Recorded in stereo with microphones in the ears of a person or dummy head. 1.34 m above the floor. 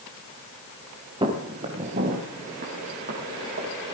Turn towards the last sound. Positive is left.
turn(degrees=-45)  # may be behind; listen again after turning